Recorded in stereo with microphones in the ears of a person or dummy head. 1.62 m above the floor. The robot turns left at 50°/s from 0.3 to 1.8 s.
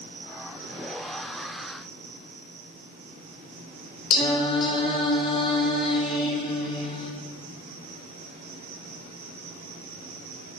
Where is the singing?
25° left (ahead or behind), 1.1 m.